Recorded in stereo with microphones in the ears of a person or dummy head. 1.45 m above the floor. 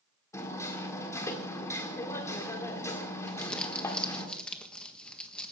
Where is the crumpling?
5° left (ahead or behind), 1.5 m.